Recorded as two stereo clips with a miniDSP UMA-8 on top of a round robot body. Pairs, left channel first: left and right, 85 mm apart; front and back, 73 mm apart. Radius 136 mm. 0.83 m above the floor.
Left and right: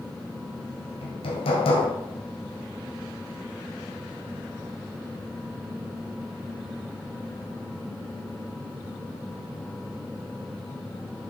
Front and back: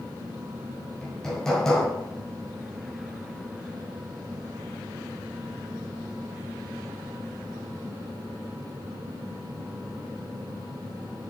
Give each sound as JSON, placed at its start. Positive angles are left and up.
{"t": 1.0, "sound": "hammering", "azimuth_deg": 85, "distance_m": 1.7}